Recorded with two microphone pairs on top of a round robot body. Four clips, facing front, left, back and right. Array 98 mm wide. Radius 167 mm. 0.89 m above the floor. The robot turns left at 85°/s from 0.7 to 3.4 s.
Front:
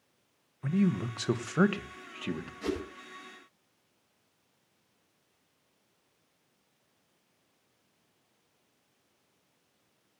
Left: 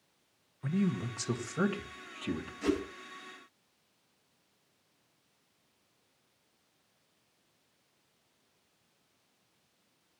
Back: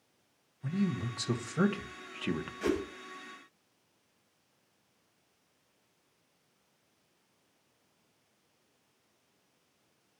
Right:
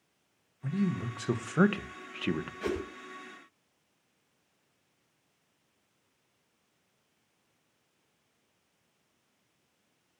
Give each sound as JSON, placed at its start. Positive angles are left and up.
{"t": 0.6, "sound": "a man speaking", "azimuth_deg": 25, "distance_m": 1.3}
{"t": 2.6, "sound": "a whoosh", "azimuth_deg": -135, "distance_m": 7.5}